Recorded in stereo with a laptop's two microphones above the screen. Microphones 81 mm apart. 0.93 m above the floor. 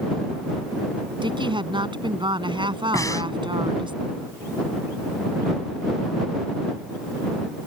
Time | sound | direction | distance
1.2 | a woman speaking | 85° right | ?
2.9 | breathing | 45° left (ahead or behind) | ?